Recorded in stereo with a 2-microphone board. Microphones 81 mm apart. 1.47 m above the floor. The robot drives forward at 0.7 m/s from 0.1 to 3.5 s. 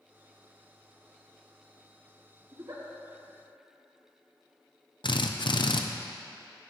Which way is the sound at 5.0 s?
70° left (ahead or behind).